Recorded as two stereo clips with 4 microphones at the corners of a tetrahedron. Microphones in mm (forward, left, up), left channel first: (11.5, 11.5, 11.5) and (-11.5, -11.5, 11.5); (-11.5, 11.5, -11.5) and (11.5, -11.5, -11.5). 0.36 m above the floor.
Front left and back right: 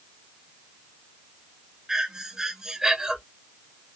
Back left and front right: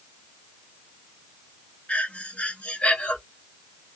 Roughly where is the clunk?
I don't hear a clunk.